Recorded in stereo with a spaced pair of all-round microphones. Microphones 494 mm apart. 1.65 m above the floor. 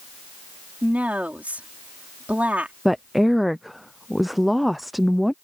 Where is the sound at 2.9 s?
Centre (ahead or behind).